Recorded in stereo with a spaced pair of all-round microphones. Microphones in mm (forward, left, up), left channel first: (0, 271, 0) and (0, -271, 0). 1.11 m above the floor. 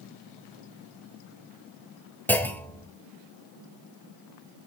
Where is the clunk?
5° left (ahead or behind), 0.9 m.